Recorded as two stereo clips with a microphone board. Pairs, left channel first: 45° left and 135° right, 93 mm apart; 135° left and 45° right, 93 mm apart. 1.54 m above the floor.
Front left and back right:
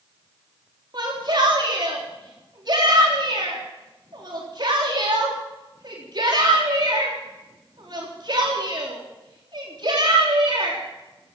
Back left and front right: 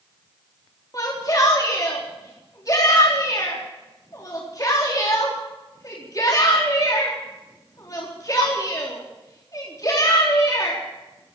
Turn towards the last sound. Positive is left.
turn(degrees=-175)